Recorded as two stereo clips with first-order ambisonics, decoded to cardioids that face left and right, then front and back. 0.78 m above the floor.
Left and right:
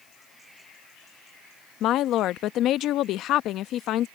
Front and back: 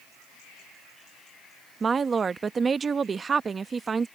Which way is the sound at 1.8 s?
115° left.